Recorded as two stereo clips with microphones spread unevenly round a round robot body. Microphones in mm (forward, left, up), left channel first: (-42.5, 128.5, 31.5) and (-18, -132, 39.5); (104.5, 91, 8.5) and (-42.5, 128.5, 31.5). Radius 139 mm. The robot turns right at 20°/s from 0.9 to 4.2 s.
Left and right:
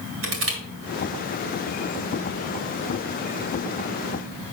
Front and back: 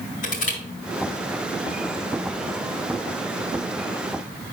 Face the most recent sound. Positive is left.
turn(degrees=25)